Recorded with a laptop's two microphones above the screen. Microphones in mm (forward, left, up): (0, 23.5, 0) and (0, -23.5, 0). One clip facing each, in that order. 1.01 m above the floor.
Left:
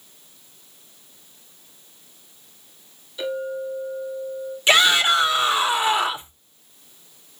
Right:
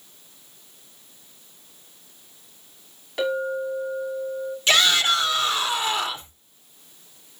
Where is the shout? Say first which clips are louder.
Left 3 dB; 20° left (ahead or behind), 4 m.